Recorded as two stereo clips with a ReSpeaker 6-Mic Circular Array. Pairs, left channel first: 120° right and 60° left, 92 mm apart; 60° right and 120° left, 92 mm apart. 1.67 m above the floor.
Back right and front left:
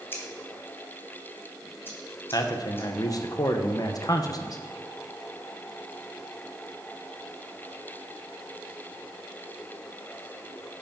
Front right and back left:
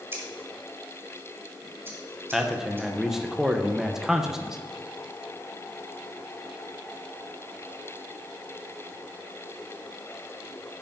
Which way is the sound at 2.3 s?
155° right.